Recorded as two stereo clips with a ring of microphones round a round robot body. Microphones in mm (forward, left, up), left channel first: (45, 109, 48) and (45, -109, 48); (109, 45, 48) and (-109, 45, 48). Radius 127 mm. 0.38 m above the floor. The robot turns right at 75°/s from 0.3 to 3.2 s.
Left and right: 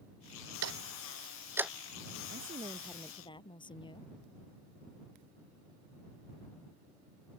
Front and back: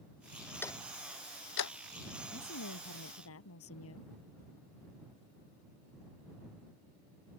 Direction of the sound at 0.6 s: 80° right.